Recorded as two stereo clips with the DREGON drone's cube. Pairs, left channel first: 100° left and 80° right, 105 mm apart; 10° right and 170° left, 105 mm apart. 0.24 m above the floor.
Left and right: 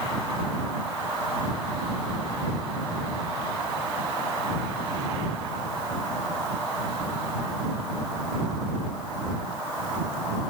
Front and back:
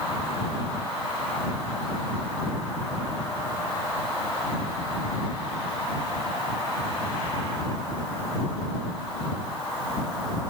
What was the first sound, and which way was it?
Only background noise.